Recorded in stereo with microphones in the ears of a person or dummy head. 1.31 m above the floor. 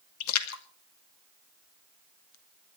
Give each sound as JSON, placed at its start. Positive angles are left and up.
{"t": 0.2, "sound": "a splash", "side_deg": 85, "distance_m": 2.0}